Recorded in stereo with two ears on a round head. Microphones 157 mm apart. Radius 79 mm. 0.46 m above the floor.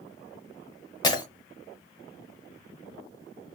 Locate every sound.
1.0 s breaking glass: 25° left (ahead or behind), 1.2 m